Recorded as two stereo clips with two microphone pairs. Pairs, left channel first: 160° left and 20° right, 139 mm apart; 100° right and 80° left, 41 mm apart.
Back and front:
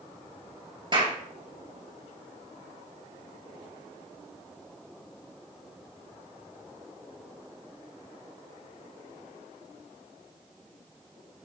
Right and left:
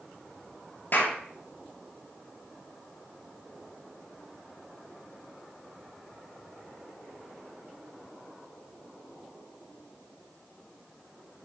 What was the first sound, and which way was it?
A clap, 75° right.